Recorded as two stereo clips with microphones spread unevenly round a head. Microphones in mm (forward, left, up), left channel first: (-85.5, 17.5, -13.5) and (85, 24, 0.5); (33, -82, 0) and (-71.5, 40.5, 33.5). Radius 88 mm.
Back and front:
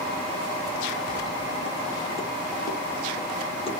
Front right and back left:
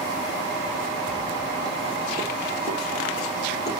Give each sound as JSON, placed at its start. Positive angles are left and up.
{"t": 1.1, "sound": "footsteps", "azimuth_deg": -145, "distance_m": 3.0}